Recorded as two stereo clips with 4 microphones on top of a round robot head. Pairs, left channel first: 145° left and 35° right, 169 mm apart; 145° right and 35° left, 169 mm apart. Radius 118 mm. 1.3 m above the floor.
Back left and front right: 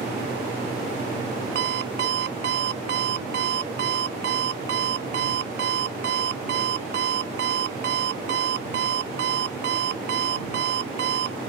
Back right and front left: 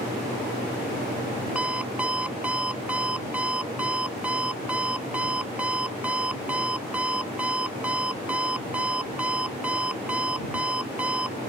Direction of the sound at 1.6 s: 50° right.